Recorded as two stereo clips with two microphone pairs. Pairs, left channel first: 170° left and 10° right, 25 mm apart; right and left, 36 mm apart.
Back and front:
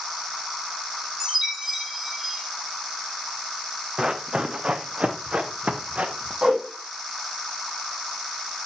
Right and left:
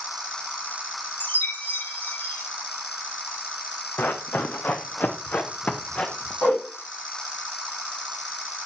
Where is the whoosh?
65° right, 7.5 m.